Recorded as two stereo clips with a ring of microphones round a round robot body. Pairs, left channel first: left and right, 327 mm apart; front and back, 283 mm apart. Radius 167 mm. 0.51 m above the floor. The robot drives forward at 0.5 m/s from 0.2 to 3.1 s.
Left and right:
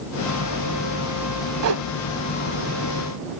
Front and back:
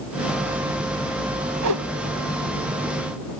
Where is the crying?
I don't hear crying.